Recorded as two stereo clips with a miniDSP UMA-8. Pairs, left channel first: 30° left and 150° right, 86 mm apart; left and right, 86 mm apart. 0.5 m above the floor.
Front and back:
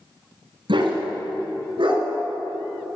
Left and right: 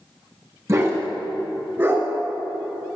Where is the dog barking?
145° right, 1.8 m; by 2.0 s 150° right, 2.5 m.